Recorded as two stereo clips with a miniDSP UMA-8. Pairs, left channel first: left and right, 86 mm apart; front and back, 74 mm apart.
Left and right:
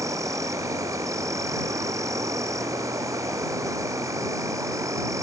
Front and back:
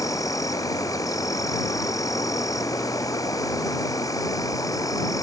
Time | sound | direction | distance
0.0 | an insect | 40° right | ?